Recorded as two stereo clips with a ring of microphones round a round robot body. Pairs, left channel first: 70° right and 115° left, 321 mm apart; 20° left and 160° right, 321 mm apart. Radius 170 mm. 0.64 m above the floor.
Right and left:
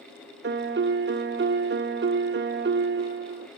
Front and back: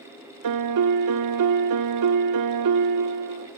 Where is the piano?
170° left, 0.8 m.